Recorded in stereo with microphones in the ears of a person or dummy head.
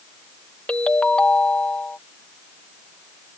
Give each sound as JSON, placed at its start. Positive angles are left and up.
{"t": 0.7, "sound": "a ringtone", "side_deg": 5}